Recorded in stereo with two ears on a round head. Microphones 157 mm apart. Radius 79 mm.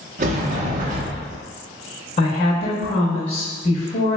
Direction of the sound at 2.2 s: 35° left (ahead or behind).